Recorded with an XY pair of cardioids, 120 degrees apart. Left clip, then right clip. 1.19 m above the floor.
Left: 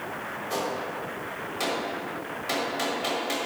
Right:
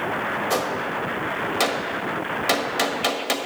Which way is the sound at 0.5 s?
60° right.